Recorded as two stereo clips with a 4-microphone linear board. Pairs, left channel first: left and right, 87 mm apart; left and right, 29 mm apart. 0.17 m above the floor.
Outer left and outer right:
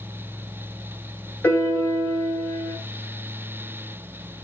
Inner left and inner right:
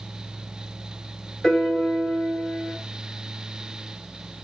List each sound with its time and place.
1.4 s a piano: 20° left (ahead or behind), 1.2 m